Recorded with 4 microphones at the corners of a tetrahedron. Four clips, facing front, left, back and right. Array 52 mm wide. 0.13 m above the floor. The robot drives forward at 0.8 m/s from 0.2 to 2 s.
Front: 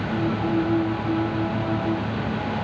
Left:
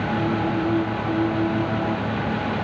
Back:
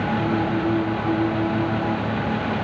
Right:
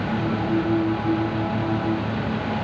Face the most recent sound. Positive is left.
No sound to turn to.